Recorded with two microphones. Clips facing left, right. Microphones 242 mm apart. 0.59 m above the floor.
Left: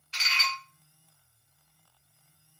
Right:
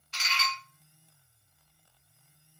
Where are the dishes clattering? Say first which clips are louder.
Right 2 dB; 50° right (ahead or behind), 0.7 m.